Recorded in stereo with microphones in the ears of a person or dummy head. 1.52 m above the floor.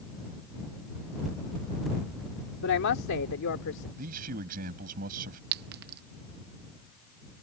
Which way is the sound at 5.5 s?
55° right (ahead or behind).